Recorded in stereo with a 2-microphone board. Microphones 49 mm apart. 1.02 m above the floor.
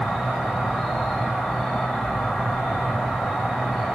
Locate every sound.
0.0 s an insect: 5° right (ahead or behind), 1.8 m